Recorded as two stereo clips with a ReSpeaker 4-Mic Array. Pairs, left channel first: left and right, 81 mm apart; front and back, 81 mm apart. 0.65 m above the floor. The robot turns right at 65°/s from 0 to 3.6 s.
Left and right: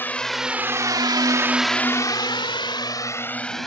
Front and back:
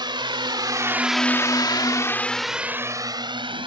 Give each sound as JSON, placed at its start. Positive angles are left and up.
{"t": 0.0, "sound": "a drone", "azimuth_deg": 155}